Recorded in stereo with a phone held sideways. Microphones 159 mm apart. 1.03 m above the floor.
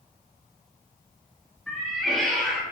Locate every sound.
1.7 s a cat meowing: centre (ahead or behind), 0.6 m